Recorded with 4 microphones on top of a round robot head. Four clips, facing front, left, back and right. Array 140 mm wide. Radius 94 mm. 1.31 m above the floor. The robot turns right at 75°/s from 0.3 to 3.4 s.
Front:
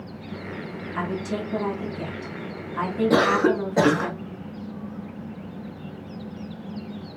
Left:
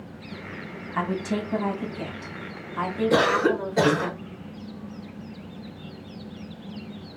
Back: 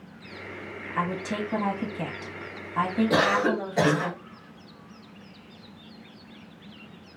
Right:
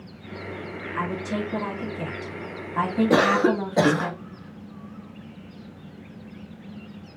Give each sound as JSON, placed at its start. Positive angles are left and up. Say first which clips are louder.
{"t": 0.9, "sound": "a woman speaking", "louder": "left 2 dB, even", "azimuth_deg": 100, "distance_m": 0.9}
{"t": 3.1, "sound": "a cough", "louder": "right 1 dB, front 6 dB", "azimuth_deg": -55, "distance_m": 0.8}